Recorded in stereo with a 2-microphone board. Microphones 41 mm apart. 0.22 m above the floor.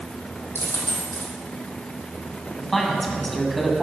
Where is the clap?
I don't hear a clap.